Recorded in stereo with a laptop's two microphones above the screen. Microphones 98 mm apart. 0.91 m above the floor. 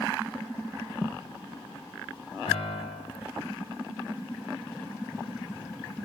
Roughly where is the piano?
Left.